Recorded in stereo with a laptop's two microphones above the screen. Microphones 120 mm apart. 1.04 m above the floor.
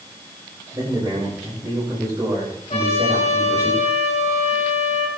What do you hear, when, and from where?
0.7 s a man speaking: 30° right (ahead or behind), 5.5 m
2.7 s a trumpet: 60° left (ahead or behind), 2.5 m